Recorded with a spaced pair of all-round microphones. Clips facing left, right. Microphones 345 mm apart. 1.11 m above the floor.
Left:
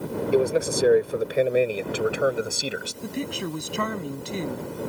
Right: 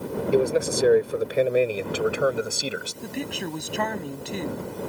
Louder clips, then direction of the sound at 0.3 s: Even; centre (ahead or behind).